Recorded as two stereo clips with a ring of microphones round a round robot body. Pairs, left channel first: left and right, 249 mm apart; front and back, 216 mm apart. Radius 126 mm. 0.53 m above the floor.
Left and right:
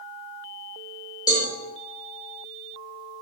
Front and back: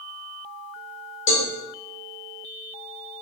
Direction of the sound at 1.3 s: 15° left.